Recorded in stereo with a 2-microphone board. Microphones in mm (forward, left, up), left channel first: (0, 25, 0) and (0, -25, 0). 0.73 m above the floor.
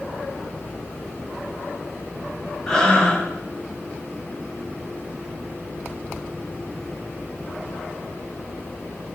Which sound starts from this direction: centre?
Breathing, at 2.7 s.